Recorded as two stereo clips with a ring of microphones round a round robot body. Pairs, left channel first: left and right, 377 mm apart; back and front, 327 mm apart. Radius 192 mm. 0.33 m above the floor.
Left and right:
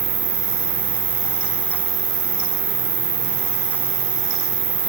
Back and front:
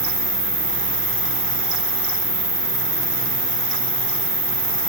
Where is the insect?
90° right, 2.0 m.